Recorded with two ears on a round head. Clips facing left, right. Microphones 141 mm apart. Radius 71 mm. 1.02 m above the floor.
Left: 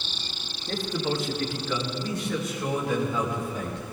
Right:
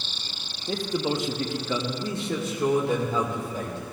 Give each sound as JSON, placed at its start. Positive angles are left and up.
{"t": 0.7, "sound": "a man speaking", "side_deg": -10, "distance_m": 1.1}